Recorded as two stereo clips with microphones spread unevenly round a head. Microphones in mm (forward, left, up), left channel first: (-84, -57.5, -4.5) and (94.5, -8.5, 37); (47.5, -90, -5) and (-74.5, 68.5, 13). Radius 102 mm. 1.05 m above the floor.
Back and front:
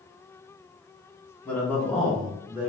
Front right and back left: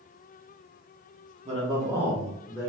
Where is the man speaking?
155° left, 0.8 m; by 2.7 s 85° right, 0.8 m.